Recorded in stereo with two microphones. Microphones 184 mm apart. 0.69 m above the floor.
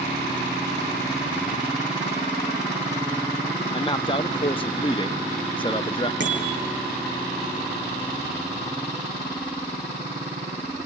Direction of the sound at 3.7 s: 30° left (ahead or behind).